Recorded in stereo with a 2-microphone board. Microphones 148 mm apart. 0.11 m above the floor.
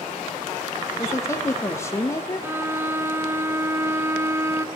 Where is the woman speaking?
20° left (ahead or behind), 5 m.